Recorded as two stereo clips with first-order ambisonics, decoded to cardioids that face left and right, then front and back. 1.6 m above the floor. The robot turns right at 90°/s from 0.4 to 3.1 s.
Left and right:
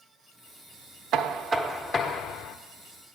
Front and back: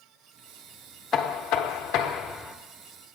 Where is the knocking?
55° right, 0.7 m; by 2.6 s 75° left, 0.7 m.